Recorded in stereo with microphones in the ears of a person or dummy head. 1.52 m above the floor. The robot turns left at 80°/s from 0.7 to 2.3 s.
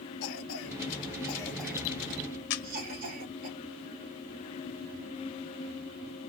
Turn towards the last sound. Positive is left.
turn(degrees=50)  # may be behind; listen again after turning